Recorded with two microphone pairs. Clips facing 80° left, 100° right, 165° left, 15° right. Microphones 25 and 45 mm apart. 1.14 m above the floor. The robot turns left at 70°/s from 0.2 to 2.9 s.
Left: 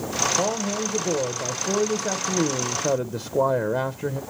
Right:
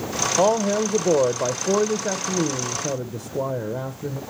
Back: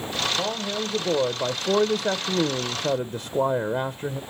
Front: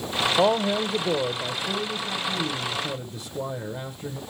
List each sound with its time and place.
0.4 s a man speaking: 65° right, 0.6 m; by 4.2 s 120° left, 0.6 m